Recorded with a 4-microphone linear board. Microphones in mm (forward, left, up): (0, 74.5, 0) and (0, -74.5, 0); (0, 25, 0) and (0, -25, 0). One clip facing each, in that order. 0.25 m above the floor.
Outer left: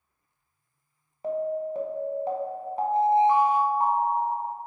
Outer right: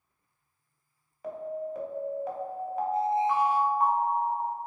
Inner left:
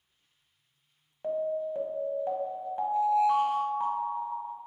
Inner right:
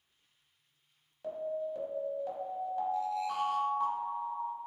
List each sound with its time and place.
1.2 s an alarm: 30° left (ahead or behind), 0.8 m